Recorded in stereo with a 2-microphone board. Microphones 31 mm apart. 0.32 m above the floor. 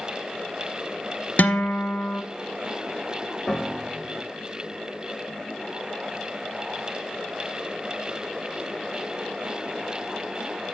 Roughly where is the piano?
Left.